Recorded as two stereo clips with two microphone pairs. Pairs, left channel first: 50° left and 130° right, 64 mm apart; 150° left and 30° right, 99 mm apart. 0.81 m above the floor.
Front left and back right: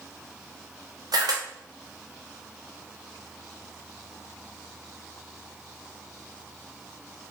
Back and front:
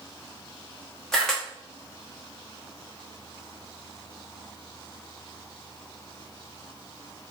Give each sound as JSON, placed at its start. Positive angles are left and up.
{"t": 1.1, "sound": "a camera shutter", "azimuth_deg": -125, "distance_m": 0.6}